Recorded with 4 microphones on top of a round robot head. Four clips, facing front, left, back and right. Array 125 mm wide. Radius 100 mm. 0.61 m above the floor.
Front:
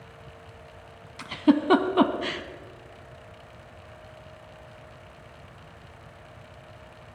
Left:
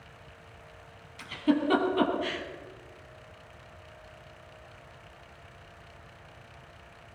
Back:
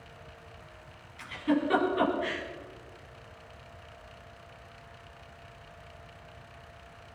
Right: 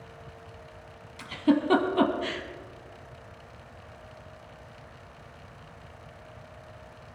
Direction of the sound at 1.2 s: 15° right.